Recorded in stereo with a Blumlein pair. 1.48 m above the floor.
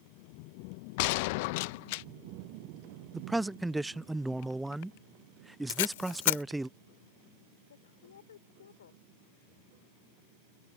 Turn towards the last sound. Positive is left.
turn(degrees=65)